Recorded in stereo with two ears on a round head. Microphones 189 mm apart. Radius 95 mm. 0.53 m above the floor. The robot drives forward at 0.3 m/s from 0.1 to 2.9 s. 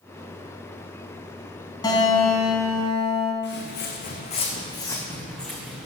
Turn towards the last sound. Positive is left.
turn(degrees=-5)  # may be behind; listen again after turning